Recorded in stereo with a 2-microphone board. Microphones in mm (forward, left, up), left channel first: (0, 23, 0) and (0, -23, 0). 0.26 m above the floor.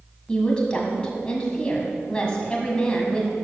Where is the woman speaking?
20° left (ahead or behind), 2 m.